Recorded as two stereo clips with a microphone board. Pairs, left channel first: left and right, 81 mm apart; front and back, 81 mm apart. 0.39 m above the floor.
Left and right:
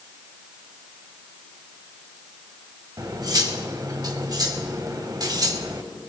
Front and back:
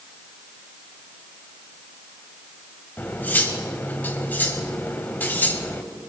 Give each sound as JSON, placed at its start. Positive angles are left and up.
{"t": 3.0, "sound": "cutlery clinking", "azimuth_deg": -65, "distance_m": 1.4}